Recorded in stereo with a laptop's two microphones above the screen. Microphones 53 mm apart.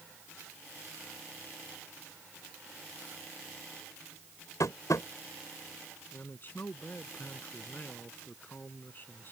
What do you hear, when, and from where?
4.6 s tapping: 85° left
6.1 s a man speaking: 35° left (ahead or behind)